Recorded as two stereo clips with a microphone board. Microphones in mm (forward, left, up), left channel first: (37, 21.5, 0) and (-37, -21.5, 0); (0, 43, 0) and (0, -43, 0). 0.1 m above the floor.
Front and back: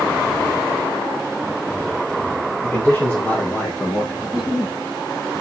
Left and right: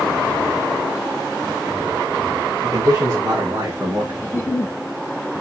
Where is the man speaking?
40° right, 4.5 m; by 4.1 s 30° right, 5.5 m.